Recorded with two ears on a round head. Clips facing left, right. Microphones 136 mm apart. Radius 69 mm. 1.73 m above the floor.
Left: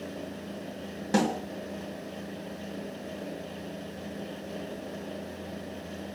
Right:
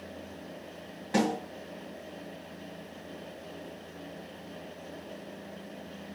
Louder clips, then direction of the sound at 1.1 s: Left 1 dB; 55° left (ahead or behind).